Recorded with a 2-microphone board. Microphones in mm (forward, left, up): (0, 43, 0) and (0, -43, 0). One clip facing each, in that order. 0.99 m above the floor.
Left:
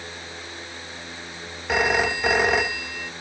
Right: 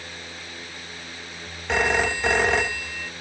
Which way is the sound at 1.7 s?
5° left (ahead or behind).